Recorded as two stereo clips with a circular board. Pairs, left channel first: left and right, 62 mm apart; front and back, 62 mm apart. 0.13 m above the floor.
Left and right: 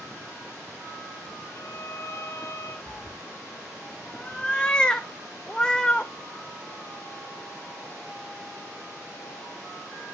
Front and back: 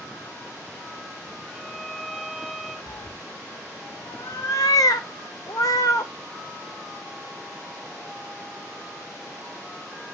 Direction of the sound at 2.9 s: 15° left.